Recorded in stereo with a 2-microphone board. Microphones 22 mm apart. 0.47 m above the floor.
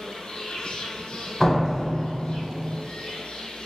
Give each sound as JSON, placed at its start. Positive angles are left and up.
{"t": 0.0, "sound": "an insect", "side_deg": 65, "distance_m": 0.7}
{"t": 1.4, "sound": "a door slam", "side_deg": 10, "distance_m": 0.9}